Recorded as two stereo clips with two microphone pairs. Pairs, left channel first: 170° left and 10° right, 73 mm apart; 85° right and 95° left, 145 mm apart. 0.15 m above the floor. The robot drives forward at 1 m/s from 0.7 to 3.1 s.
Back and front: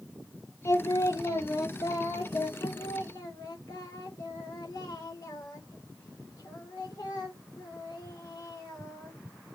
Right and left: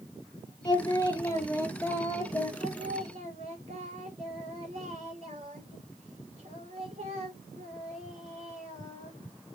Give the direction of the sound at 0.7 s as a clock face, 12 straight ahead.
5 o'clock.